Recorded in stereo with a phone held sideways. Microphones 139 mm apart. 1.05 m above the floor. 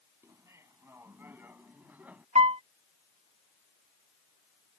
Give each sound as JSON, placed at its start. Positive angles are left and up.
{"t": 0.2, "sound": "laughter", "side_deg": -20}
{"t": 2.4, "sound": "a piano", "side_deg": -65}